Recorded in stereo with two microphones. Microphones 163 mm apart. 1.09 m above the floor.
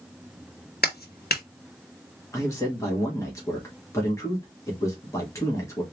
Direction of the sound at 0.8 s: 75° left (ahead or behind).